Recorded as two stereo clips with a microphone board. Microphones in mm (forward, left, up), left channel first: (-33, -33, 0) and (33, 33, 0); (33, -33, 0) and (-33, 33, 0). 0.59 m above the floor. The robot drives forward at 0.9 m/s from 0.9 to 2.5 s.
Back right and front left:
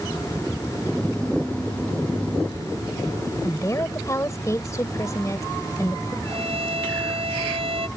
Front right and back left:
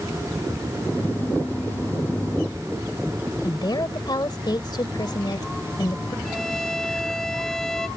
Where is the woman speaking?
80° right.